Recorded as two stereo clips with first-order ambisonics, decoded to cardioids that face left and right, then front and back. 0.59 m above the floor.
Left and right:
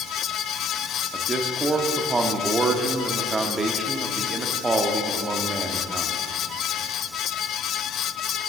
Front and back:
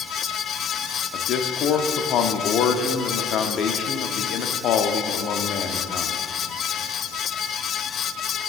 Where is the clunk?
No clunk in this recording.